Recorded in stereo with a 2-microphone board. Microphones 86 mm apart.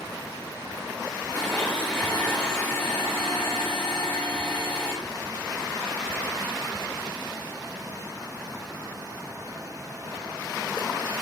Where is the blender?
20° left (ahead or behind), 3 m.